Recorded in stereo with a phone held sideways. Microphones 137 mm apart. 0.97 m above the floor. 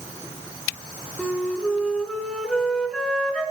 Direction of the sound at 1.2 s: 5° left (ahead or behind).